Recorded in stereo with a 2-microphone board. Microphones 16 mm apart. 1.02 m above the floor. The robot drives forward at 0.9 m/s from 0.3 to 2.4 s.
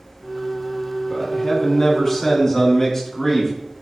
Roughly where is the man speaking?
Left.